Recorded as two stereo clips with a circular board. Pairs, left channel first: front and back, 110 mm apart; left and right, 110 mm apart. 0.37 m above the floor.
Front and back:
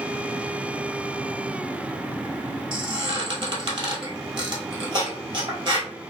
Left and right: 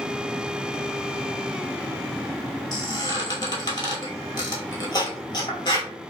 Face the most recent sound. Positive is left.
turn(degrees=140)